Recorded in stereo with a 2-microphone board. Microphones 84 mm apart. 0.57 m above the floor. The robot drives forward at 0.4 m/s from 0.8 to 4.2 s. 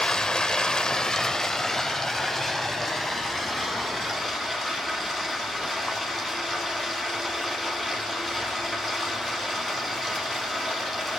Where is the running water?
10° left (ahead or behind), 0.8 m; by 11.2 s 5° left (ahead or behind), 2 m.